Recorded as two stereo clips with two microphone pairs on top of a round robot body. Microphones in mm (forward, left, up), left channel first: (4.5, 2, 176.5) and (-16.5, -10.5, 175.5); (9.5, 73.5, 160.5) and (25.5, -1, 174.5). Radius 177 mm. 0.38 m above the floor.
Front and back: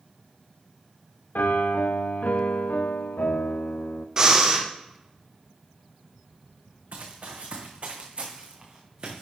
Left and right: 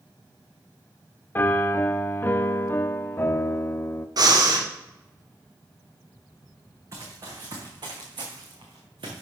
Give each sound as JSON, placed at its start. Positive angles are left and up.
{"t": 1.4, "sound": "a piano", "azimuth_deg": 35, "distance_m": 0.6}
{"t": 4.2, "sound": "breathing", "azimuth_deg": -90, "distance_m": 1.9}
{"t": 6.9, "sound": "running footsteps", "azimuth_deg": -125, "distance_m": 1.9}